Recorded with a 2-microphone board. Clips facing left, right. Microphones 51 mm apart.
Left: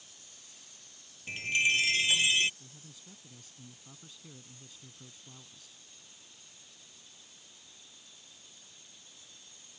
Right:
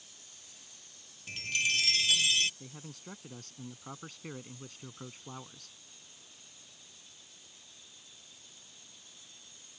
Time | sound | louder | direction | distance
1.3 | a chime | left 4 dB | 25° left (ahead or behind) | ?
2.6 | a man speaking | right 7 dB | 65° right (ahead or behind) | ?